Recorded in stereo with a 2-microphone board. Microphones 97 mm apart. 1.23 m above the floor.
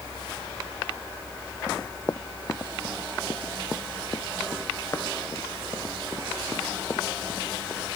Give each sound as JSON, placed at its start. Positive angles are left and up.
{"t": 1.7, "sound": "running footsteps", "side_deg": 30}